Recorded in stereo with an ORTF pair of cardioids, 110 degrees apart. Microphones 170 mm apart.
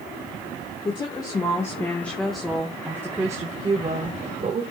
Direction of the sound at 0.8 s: 30° left.